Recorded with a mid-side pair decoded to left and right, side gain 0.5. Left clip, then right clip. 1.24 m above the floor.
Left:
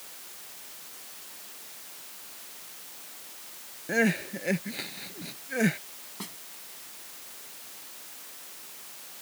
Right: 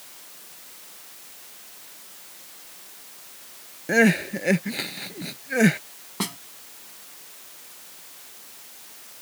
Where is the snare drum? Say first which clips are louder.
Right 12 dB; 65° right.